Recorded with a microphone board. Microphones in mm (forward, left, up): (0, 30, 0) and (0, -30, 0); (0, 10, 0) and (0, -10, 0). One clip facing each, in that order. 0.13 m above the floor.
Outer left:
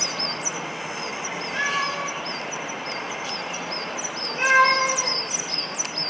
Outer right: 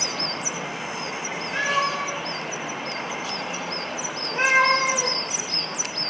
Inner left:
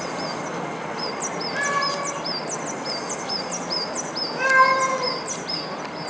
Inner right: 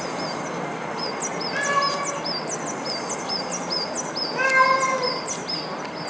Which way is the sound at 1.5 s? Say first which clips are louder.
Outer right 2 dB, inner right 1 dB; 60° right (ahead or behind).